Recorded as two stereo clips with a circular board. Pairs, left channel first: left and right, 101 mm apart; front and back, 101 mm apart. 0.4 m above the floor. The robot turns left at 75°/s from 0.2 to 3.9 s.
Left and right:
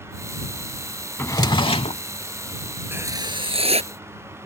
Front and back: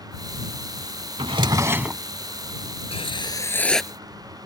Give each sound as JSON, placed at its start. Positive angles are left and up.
{"t": 1.2, "sound": "a drawer", "azimuth_deg": 155}
{"t": 2.9, "sound": "writing", "azimuth_deg": -20}